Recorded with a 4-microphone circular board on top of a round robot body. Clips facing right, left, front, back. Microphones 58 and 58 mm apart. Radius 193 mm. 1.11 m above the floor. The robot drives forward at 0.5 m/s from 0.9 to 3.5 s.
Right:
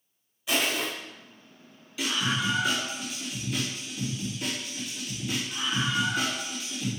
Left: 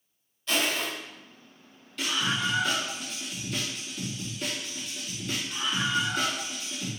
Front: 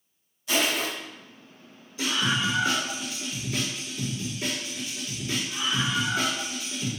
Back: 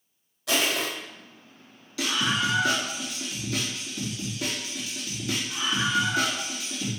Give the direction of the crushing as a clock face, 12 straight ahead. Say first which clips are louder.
Even, even; 6 o'clock.